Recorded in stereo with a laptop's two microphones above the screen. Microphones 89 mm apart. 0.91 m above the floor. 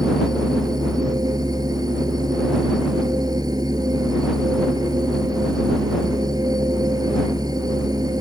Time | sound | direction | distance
0.0 | a machine running | 50° right (ahead or behind) | ?